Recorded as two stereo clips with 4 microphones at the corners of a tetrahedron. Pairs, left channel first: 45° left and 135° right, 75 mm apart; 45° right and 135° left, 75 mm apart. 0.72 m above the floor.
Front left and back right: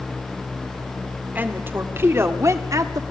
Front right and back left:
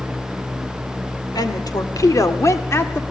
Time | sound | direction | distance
1.4 | a woman speaking | 70° right | 2 m